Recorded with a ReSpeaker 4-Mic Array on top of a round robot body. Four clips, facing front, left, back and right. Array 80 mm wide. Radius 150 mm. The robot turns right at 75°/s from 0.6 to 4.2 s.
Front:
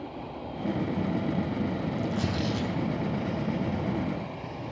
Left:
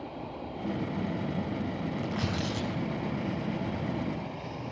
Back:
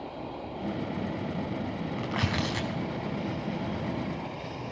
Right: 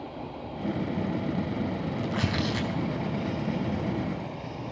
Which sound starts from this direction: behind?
Tearing paper, at 2.0 s.